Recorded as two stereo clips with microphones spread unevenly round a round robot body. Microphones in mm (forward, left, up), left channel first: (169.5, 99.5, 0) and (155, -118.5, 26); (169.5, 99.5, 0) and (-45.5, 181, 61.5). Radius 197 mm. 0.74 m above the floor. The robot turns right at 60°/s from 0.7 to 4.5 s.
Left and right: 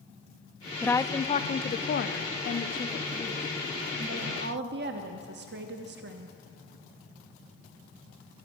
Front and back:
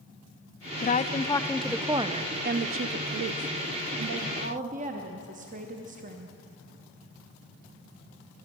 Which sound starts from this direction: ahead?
A woman speaking, at 0.8 s.